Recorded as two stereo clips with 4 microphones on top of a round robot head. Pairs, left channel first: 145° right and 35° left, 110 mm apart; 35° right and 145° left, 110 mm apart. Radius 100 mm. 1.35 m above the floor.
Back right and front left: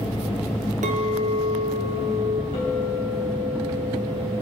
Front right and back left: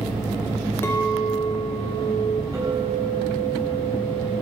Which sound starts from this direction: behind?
A clink, at 2.5 s.